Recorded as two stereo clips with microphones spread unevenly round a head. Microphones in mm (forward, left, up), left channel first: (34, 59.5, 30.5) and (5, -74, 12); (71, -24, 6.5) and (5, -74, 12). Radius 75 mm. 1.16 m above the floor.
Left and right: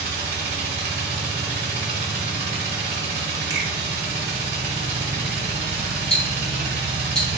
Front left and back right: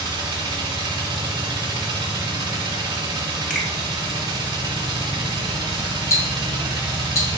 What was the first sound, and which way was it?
A machine running, 145° right.